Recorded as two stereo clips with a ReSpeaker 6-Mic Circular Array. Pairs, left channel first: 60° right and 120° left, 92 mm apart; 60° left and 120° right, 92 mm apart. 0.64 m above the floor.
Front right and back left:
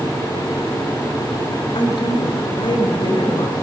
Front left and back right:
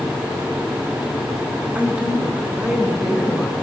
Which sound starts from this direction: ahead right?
A woman speaking, at 1.8 s.